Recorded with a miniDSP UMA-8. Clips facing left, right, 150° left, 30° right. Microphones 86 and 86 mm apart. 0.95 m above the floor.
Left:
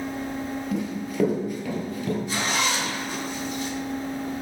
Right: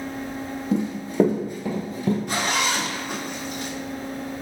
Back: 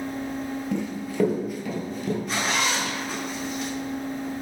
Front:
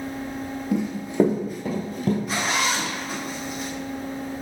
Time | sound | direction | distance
0.7 | running footsteps | 105° right | 1.0 m
2.3 | a zipper | 115° right | 0.9 m